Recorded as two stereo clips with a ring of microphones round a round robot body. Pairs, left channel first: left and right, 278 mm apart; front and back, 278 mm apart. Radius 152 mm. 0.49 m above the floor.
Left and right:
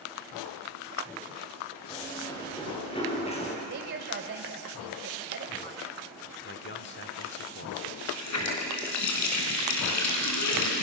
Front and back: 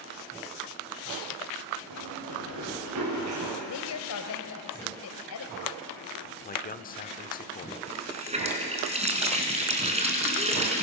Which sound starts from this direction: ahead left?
A man speaking, at 6.4 s.